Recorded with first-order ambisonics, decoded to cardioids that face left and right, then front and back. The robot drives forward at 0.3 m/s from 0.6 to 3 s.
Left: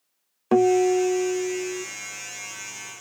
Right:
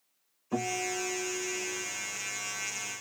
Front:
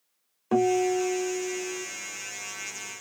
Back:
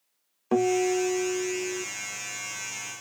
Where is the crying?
I don't hear crying.